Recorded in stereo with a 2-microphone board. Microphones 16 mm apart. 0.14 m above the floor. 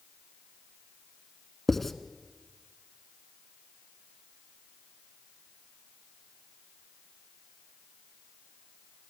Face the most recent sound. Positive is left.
turn(degrees=10)  # may be behind; listen again after turning